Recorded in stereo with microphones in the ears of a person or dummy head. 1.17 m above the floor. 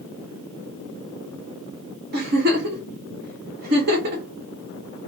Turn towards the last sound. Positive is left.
turn(degrees=-50)  # may be behind; listen again after turning